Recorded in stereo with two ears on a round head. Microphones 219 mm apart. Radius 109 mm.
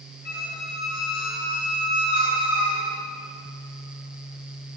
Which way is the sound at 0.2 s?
40° left (ahead or behind).